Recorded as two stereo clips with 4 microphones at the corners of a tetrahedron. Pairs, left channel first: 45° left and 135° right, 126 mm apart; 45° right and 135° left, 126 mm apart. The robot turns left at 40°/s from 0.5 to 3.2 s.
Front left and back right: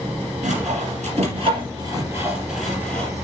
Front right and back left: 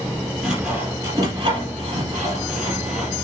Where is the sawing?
140° right, 4 m; by 3.1 s 115° left, 4 m.